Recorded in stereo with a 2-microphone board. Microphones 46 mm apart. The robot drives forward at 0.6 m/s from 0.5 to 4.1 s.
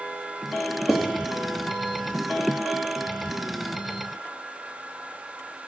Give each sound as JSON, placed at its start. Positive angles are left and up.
{"t": 0.9, "sound": "writing", "side_deg": -5, "distance_m": 1.8}